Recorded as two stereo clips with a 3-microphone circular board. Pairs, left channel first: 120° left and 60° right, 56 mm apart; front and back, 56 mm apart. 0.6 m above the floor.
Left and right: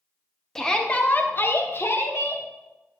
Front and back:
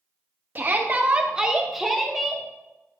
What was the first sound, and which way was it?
A shout, 160° right.